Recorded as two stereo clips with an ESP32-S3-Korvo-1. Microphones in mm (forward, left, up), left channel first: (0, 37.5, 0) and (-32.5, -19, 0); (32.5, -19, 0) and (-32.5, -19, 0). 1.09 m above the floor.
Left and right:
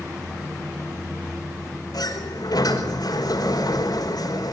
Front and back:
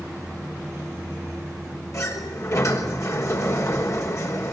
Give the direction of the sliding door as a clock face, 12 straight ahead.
11 o'clock.